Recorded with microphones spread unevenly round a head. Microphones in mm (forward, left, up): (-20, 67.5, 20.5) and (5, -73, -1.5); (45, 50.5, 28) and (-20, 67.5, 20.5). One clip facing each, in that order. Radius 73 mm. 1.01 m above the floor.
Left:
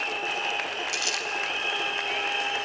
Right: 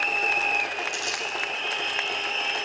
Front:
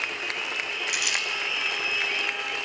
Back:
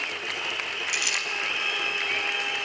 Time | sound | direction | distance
0.9 | crumpling | 75° left | 4 m